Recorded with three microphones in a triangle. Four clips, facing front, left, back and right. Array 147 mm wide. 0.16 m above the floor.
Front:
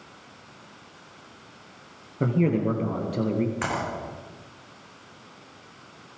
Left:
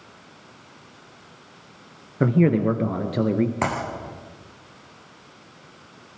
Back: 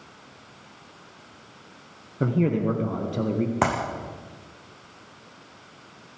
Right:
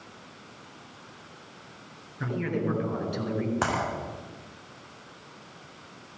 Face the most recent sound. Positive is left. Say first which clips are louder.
# left 3 dB, back 5 dB
turn(degrees=165)